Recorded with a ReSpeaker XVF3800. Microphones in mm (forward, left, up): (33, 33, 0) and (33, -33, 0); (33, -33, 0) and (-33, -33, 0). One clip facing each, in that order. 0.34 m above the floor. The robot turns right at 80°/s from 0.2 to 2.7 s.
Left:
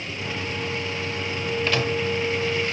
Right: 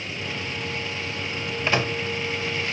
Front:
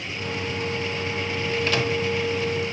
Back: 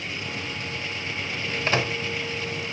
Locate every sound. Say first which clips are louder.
1.7 s a microwave: right 2 dB, back 1 dB; 150° right, 1.0 m; by 2.0 s 125° right, 1.0 m